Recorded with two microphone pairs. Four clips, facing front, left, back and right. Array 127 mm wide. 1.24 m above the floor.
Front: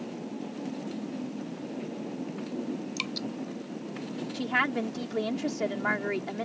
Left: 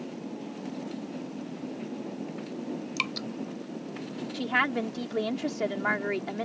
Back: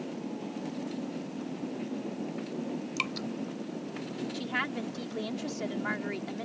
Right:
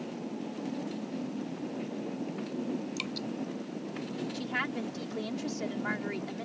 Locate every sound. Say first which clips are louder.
3.0 s dripping: left 2 dB, even; 110° left
4.3 s a woman speaking: left 10 dB, front 8 dB; 60° left